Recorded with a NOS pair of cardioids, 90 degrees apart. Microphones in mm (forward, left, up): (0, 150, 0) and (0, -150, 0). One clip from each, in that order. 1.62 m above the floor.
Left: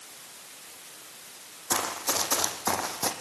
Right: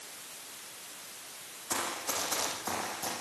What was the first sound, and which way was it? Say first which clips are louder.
Running footsteps: left 5 dB; 50° left.